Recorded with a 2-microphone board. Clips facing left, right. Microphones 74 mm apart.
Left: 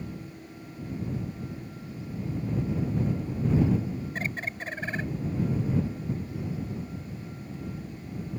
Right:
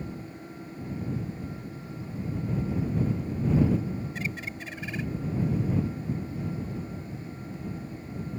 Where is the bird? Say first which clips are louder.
Left 2 dB; 45° left (ahead or behind).